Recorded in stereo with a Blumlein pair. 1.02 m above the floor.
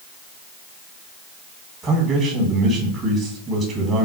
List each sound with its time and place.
1.8 s a man speaking: 20° right, 1.4 m